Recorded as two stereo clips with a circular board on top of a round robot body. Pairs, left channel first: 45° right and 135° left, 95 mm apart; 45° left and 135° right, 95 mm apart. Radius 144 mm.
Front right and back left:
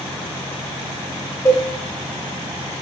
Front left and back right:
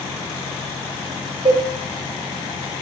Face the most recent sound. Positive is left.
turn(degrees=-110)